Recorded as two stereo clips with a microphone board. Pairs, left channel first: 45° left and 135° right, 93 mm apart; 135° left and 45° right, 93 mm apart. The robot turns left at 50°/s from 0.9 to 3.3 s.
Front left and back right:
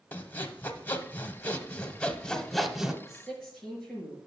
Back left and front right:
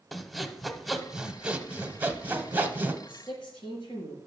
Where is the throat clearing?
No throat clearing in this recording.